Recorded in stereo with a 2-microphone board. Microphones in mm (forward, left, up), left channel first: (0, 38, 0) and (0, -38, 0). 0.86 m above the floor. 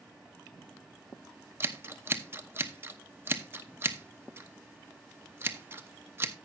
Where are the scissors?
30° right (ahead or behind), 0.8 m.